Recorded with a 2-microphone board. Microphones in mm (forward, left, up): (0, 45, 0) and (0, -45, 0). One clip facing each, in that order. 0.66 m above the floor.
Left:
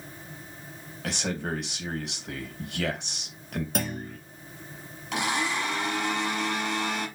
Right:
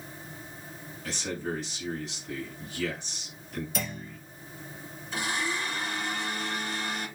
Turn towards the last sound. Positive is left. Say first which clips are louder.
# left 4 dB
turn(degrees=80)